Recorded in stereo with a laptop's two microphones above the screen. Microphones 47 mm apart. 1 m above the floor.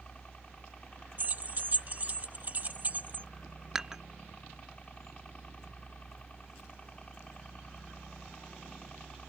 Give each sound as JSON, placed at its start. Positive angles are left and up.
{"t": 0.0, "sound": "a helicopter", "side_deg": 25}
{"t": 1.2, "sound": "keys jangling", "side_deg": -35}
{"t": 3.8, "sound": "dishes clattering", "side_deg": -10}